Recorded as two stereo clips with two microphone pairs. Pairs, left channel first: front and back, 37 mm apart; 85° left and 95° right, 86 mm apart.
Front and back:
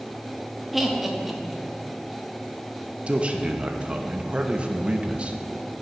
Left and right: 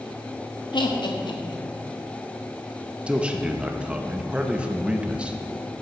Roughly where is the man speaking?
Behind.